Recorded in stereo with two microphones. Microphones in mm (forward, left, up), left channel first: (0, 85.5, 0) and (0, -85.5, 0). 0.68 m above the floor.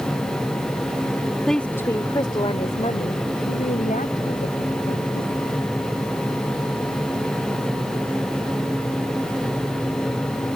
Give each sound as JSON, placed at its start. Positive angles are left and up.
{"t": 1.5, "sound": "a woman speaking", "side_deg": 0}